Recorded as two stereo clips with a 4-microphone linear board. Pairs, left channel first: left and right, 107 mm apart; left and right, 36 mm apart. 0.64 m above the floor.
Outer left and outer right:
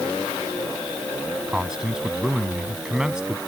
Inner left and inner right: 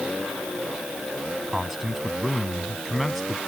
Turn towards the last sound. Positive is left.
turn(degrees=-5)  # may be behind; listen again after turning